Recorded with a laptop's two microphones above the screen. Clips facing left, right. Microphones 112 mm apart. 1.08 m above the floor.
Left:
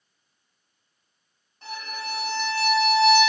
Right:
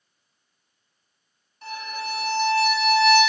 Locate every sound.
1.6 s a violin: 20° left (ahead or behind), 1.4 m